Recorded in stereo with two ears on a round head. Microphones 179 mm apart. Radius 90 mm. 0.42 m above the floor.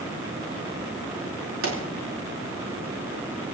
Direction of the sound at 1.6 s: 75° right (ahead or behind).